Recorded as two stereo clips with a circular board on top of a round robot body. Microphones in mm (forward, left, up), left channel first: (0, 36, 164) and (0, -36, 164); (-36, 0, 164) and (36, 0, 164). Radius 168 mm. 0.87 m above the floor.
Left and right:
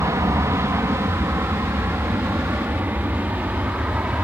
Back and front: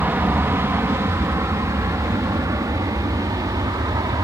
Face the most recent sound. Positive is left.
turn(degrees=-20)